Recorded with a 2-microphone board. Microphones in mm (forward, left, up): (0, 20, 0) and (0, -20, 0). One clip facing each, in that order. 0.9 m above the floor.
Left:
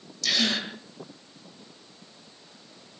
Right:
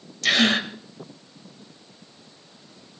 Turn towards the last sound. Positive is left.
turn(degrees=-50)  # may be behind; listen again after turning